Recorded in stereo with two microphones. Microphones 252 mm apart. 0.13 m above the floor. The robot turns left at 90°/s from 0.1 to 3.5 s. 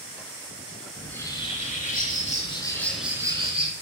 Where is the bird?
Straight behind, 0.5 m; by 3.7 s 50° right, 0.5 m.